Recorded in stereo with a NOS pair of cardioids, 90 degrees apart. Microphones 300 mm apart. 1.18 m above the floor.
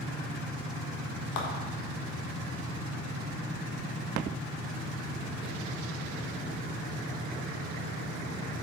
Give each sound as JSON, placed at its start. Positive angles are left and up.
{"t": 1.4, "sound": "a clap", "azimuth_deg": 70, "distance_m": 1.4}